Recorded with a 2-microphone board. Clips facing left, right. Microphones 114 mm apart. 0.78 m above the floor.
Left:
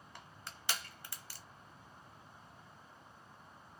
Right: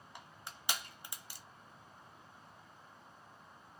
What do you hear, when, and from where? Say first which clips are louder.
0.1 s crushing: right 1 dB; 15° right (ahead or behind), 0.8 m